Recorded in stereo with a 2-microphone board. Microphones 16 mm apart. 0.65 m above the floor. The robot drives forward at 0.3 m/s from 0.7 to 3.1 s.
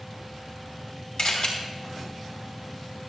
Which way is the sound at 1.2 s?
75° left (ahead or behind).